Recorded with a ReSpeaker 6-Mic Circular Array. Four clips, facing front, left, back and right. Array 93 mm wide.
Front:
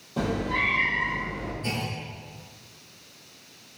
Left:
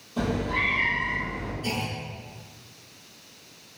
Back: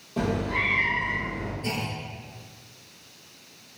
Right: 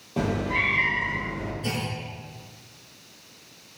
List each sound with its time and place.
0.2 s a cat meowing: 95° right, 7 m
1.6 s a clunk: 90° right, 3 m